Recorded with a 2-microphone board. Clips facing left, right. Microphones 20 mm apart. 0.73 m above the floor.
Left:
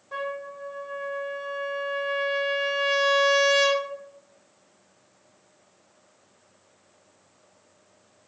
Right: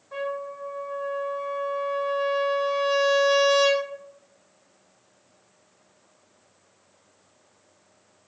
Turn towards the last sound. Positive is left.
turn(degrees=15)  # may be behind; listen again after turning